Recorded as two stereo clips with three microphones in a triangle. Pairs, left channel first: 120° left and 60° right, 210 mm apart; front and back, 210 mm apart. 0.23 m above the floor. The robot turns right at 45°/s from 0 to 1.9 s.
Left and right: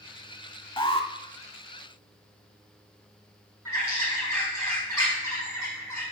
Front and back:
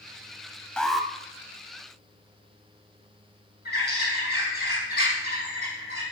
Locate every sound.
0.8 s an alarm: 80° left, 0.8 m; by 1.1 s 95° left, 0.8 m
3.6 s a bird: 45° left, 5.5 m